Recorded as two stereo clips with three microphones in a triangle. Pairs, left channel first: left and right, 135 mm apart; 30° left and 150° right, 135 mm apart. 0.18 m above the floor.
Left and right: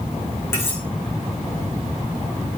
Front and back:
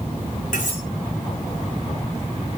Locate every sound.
0.5 s cutlery clinking: 20° left, 7.5 m